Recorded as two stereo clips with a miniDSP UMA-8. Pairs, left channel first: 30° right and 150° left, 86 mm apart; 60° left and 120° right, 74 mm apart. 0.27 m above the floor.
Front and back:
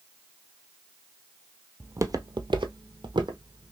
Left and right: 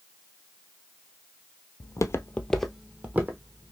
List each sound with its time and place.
1.8 s footsteps: 85° left, 0.5 m; by 3.7 s 175° right, 1.0 m